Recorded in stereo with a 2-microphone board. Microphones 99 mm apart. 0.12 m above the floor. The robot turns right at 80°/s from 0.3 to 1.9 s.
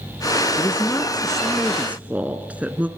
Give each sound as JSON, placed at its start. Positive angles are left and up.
{"t": 0.6, "sound": "a woman speaking", "side_deg": 25, "distance_m": 1.2}